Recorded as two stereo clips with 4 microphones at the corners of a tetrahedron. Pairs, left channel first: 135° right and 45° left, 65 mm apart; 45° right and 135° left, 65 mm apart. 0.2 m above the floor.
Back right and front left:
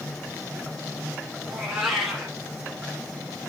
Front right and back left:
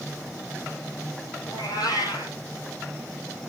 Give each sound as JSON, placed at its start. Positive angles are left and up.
{"t": 1.5, "sound": "a cat meowing", "azimuth_deg": -45, "distance_m": 2.5}